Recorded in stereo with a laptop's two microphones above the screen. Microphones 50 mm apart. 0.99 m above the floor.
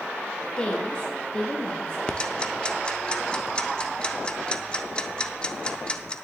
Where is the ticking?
20° left (ahead or behind), 0.6 m.